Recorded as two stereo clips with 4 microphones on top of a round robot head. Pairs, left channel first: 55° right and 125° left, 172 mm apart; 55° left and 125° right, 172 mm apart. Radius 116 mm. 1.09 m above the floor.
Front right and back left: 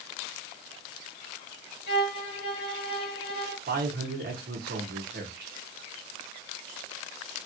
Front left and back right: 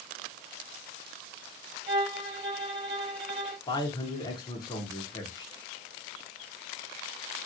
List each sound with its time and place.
1.9 s a violin: 60° right, 2.0 m
3.7 s a man speaking: 115° left, 0.9 m